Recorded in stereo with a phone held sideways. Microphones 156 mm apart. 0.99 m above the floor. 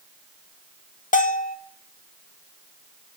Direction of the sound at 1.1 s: 55° left (ahead or behind).